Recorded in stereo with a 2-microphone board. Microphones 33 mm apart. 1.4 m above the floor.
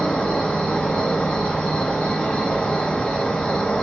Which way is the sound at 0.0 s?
35° left (ahead or behind).